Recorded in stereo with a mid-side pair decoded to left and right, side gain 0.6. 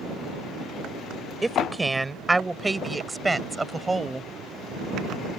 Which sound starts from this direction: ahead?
A woman speaking, at 1.4 s.